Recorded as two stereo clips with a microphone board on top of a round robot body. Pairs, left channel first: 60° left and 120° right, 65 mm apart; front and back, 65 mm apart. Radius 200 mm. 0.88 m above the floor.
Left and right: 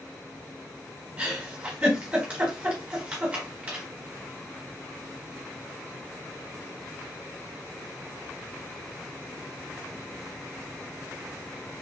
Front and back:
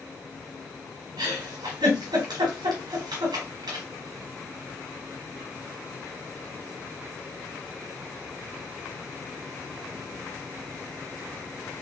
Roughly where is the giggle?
Behind.